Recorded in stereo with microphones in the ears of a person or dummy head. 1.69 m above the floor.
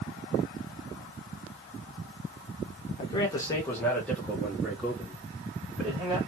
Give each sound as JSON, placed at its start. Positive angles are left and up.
{"t": 3.0, "sound": "a man speaking", "side_deg": 35, "distance_m": 0.8}